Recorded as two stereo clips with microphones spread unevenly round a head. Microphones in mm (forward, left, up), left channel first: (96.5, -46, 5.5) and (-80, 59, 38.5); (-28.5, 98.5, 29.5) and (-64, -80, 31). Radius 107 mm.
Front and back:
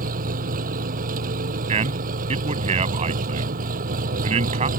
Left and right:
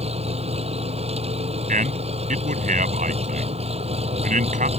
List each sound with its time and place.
0.0 s an engine running: 160° right
1.7 s a man speaking: 150° right